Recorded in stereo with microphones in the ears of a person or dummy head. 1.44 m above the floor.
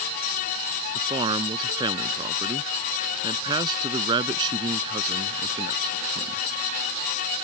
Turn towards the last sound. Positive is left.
turn(degrees=-25)  # may be behind; listen again after turning